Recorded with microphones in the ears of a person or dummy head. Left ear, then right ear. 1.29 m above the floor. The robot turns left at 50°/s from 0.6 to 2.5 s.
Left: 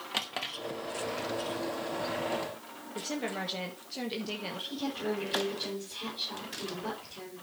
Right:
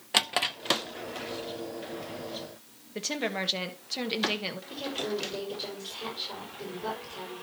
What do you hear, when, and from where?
0.1 s a drawer: 30° right (ahead or behind), 0.6 m
3.0 s a woman speaking: 35° right (ahead or behind), 1.6 m
4.7 s a woman speaking: 30° right (ahead or behind), 5.5 m